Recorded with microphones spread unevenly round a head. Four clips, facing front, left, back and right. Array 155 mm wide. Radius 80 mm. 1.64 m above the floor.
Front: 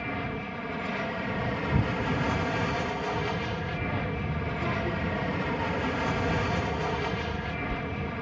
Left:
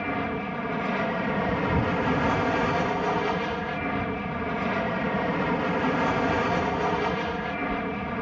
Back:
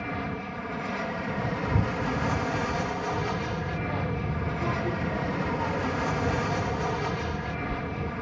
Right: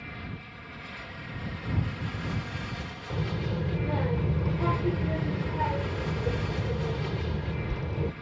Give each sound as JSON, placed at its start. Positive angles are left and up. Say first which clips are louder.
{"t": 0.0, "sound": "an aircraft", "louder": "left 14 dB, back 1 dB", "azimuth_deg": 90}
{"t": 3.1, "sound": "a child speaking", "louder": "left 7 dB, back 1 dB", "azimuth_deg": -105}